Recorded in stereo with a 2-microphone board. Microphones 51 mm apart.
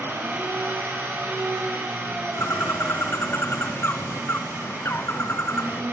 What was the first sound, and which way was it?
An engine running, 50° right (ahead or behind).